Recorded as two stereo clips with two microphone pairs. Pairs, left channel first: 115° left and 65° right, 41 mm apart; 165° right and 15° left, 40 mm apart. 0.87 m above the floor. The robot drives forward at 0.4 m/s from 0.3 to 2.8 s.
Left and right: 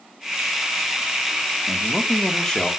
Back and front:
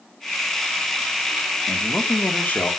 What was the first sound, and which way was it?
A man speaking, straight behind.